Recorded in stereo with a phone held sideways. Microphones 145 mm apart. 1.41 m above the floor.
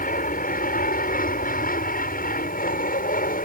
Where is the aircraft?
75° left (ahead or behind).